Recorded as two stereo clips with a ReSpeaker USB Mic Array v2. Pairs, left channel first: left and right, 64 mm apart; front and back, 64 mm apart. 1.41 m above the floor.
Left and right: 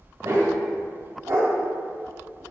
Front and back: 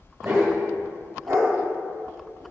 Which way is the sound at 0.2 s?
135° right.